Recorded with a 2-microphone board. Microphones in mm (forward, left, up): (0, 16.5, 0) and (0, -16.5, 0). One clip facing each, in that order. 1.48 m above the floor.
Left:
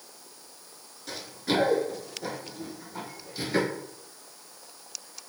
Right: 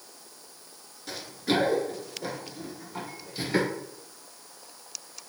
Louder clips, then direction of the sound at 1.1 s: Right 1 dB; 5° right (ahead or behind).